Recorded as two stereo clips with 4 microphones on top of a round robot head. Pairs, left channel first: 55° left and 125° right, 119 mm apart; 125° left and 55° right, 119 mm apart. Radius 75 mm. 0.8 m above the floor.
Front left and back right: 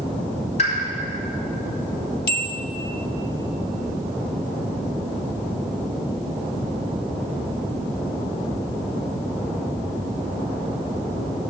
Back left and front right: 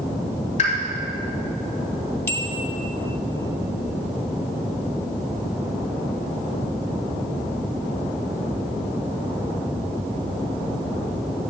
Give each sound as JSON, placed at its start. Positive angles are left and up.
{"t": 0.6, "sound": "a pop", "azimuth_deg": 90, "distance_m": 3.0}
{"t": 2.3, "sound": "a bell", "azimuth_deg": 55, "distance_m": 0.5}